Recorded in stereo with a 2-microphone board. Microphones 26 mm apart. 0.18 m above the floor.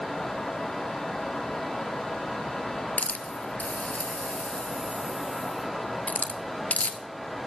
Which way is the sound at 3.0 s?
70° left (ahead or behind).